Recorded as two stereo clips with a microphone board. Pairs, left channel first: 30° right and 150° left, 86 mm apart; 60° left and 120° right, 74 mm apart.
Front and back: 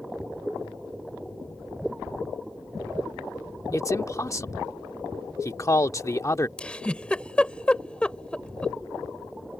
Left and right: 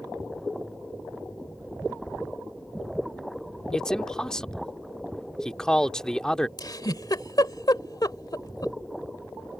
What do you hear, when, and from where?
3.7 s a man speaking: 15° right
6.6 s a giggle: 45° left